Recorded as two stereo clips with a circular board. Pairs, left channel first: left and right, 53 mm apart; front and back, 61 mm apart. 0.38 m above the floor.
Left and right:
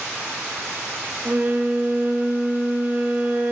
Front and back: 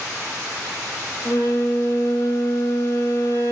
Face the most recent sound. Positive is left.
turn(degrees=-35)